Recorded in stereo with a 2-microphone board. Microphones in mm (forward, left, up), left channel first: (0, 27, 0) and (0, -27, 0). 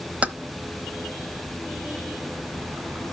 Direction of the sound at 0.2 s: 25° right (ahead or behind).